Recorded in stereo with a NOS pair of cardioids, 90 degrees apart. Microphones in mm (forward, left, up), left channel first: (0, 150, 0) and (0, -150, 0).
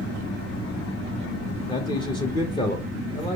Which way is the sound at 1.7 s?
15° left.